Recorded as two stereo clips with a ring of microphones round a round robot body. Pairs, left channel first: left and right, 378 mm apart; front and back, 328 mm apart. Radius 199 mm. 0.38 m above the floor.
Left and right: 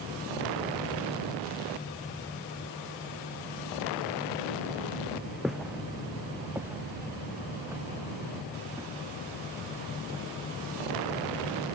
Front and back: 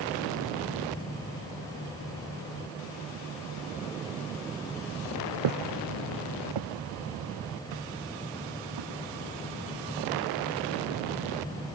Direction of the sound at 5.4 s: Straight behind.